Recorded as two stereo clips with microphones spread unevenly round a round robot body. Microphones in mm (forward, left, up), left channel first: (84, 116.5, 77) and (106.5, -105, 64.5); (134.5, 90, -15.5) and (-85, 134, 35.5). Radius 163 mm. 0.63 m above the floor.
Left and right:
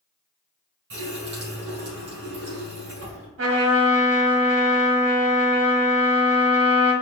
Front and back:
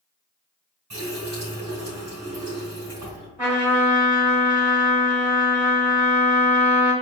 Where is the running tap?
130° right, 1.6 m.